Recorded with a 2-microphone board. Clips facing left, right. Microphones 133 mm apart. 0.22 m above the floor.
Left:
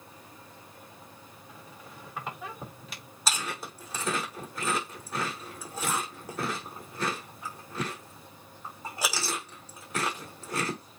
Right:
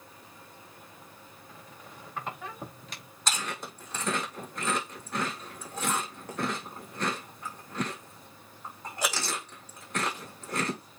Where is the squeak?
5° left (ahead or behind), 4.5 m.